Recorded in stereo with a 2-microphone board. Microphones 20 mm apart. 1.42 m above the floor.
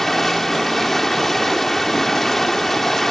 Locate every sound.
0.0 s running water: 15° left (ahead or behind)